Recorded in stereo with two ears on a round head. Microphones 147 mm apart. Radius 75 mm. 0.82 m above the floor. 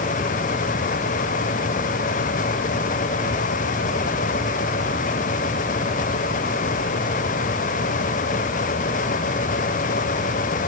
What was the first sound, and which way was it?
Only background noise.